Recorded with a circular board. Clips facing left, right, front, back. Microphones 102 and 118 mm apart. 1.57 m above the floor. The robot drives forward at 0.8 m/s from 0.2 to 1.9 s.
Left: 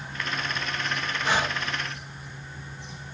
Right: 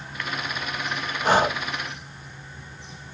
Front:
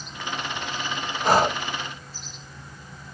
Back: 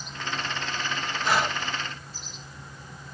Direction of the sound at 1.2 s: 45° right.